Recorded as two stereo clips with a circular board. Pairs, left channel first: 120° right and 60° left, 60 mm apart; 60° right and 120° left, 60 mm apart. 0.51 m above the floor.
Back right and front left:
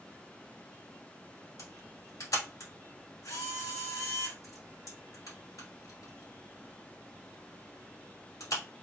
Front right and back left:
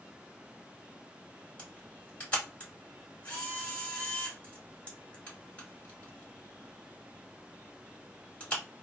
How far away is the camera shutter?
About 2.5 m.